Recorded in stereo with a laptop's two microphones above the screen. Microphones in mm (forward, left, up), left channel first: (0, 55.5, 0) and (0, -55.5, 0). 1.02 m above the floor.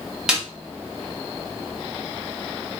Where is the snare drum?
5° right (ahead or behind), 0.9 m.